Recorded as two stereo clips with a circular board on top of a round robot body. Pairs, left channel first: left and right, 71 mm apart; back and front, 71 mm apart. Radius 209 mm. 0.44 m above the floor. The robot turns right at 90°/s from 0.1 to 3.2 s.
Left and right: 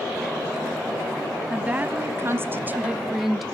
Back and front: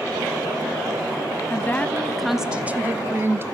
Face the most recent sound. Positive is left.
turn(degrees=-5)